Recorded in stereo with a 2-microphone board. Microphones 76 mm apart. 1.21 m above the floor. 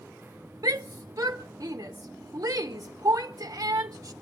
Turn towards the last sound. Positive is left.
turn(degrees=-45)  # may be behind; listen again after turning